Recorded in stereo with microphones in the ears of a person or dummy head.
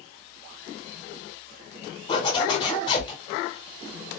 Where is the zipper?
25° left (ahead or behind), 1.1 m.